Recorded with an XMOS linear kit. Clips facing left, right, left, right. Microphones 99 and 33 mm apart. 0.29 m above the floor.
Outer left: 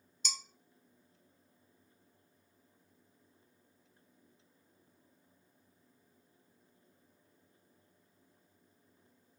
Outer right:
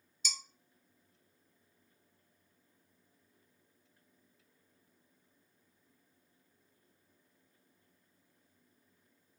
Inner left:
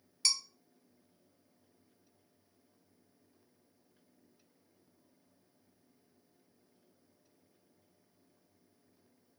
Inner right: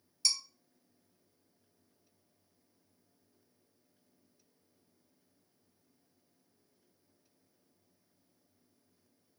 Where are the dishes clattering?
50° left (ahead or behind), 0.8 m.